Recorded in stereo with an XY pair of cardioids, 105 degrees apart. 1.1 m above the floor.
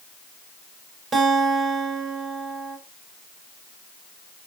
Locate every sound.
1.1 s a guitar: 45° right, 6 m